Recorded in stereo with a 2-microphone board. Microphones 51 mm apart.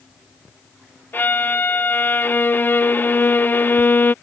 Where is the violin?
40° left (ahead or behind).